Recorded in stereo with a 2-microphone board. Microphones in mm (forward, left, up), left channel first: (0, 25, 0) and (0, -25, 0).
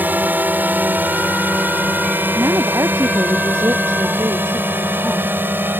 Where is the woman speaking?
85° right.